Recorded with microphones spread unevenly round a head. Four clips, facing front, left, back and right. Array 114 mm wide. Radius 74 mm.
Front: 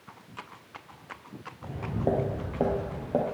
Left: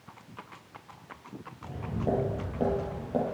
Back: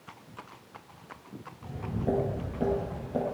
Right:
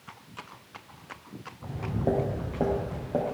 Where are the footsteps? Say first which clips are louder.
Right 3 dB, front 3 dB; 35° right, 2 m; by 3.2 s 15° right, 2.5 m.